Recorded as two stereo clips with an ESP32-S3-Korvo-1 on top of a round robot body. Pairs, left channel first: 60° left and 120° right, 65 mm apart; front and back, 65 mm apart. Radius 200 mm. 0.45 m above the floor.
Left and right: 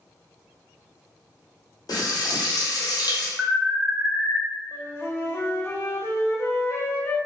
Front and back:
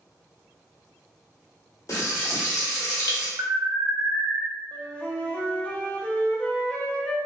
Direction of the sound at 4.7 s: 55° left.